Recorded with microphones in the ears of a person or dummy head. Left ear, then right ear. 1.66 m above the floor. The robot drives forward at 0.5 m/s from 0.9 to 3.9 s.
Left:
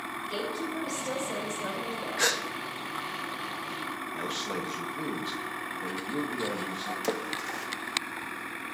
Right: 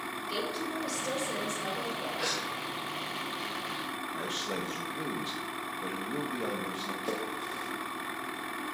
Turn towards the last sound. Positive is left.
turn(degrees=50)  # may be behind; listen again after turning